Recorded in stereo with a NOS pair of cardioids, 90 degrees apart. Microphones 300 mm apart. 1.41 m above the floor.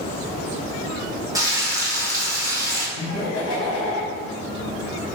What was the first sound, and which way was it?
Frying, 10° right.